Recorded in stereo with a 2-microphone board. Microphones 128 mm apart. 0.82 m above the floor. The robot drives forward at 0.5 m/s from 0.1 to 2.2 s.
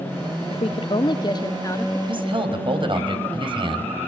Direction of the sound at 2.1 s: 45° right (ahead or behind).